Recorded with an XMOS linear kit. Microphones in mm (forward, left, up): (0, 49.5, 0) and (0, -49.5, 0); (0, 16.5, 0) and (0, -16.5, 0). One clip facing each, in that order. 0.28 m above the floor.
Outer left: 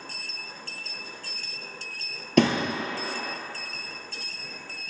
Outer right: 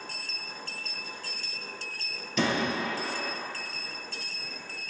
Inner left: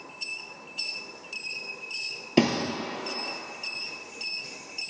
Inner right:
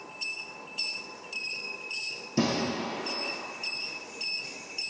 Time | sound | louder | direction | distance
2.4 | a thud | outer left 6 dB, inner left 4 dB | 65° left (ahead or behind) | 1.3 m